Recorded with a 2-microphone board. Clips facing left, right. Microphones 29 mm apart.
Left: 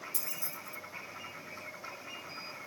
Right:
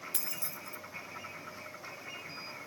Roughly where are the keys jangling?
Right.